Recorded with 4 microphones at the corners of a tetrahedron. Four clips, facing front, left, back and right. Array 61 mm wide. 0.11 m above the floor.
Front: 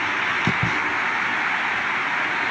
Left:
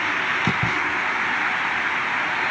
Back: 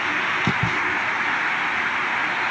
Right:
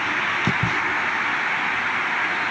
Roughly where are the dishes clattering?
No dishes clattering in this recording.